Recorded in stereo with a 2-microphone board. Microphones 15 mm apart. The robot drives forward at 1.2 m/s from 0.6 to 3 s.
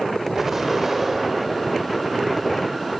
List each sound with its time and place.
0.3 s an explosion: 30° right (ahead or behind), 5.5 m; by 2.1 s 25° right (ahead or behind), 7 m